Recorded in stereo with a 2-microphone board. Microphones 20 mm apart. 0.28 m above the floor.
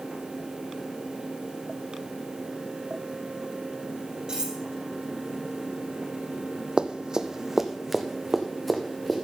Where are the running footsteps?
50° right (ahead or behind), 0.8 m; by 9.2 s 5° left (ahead or behind), 2 m.